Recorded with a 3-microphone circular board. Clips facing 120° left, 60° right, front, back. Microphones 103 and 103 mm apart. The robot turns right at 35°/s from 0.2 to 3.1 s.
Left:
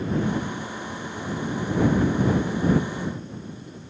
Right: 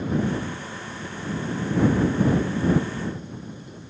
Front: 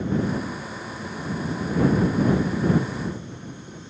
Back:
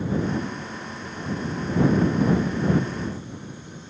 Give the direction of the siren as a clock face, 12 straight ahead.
I don't hear a siren.